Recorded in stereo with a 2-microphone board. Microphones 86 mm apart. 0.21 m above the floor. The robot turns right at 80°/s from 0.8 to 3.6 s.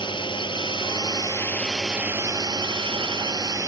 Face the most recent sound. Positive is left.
turn(degrees=-35)  # may be behind; listen again after turning